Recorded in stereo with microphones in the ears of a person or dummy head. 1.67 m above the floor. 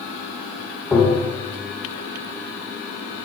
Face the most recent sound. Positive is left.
turn(degrees=0)  # may be behind; listen again after turning